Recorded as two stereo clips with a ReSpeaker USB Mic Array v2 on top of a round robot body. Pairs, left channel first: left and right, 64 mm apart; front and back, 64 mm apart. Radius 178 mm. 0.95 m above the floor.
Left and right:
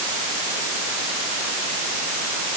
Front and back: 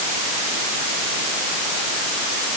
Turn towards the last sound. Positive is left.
No sound to turn to.